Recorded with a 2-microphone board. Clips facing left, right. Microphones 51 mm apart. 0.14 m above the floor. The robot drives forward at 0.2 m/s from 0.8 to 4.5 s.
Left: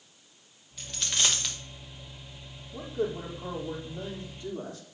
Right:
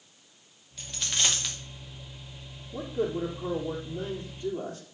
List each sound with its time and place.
0.8 s a dropped coin: centre (ahead or behind), 2.5 m
2.7 s a man speaking: 40° right (ahead or behind), 3 m; by 4.8 s 35° right (ahead or behind), 3.5 m